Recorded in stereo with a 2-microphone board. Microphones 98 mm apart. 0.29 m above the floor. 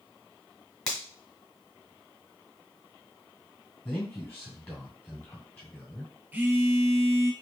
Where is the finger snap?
5° left (ahead or behind), 1.8 m.